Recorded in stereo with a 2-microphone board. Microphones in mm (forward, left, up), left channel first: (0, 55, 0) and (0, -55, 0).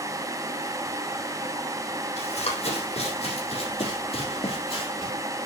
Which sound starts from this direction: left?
Running footsteps, at 2.2 s.